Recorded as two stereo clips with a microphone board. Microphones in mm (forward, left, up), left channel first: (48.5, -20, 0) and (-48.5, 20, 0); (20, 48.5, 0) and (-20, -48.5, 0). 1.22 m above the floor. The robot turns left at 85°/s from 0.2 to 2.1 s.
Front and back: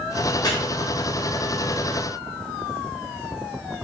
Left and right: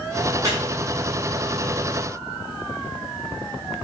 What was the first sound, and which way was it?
Chopping, 60° right.